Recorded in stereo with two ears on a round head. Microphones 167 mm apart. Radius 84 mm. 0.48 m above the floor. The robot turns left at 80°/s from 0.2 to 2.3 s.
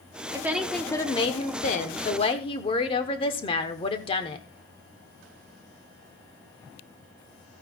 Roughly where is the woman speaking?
Behind right.